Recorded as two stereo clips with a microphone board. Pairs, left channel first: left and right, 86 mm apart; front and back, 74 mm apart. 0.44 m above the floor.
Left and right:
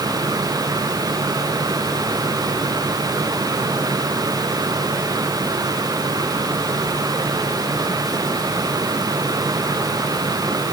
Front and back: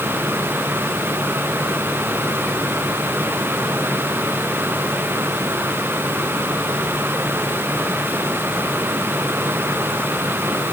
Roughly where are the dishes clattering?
No dishes clattering in this recording.